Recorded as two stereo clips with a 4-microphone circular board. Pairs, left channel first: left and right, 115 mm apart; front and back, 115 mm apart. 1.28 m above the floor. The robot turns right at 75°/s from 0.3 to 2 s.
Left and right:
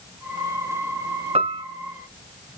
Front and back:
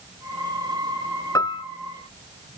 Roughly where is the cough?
No cough in this recording.